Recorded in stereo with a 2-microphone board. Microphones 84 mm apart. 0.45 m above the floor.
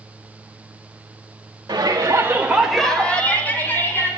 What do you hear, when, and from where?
1.7 s a shout: 55° right (ahead or behind), 1.4 m; by 4.1 s 25° left (ahead or behind), 3.5 m